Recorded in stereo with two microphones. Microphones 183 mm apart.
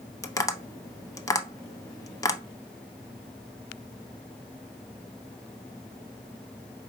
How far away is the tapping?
About 0.6 m.